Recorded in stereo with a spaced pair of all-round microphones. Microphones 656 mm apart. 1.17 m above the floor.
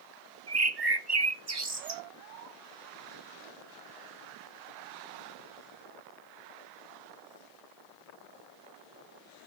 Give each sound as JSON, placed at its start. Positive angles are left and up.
{"t": 0.5, "sound": "a bird", "side_deg": -40, "distance_m": 0.8}